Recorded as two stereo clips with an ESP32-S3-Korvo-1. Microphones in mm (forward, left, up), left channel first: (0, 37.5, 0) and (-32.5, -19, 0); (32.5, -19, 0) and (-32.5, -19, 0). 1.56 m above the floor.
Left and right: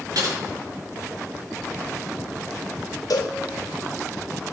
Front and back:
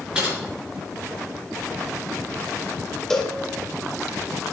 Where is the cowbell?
80° left, 1.4 m.